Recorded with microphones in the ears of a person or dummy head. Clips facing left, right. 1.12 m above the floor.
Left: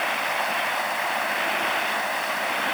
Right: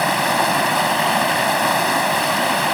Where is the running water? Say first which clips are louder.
Right 9 dB; 65° right (ahead or behind).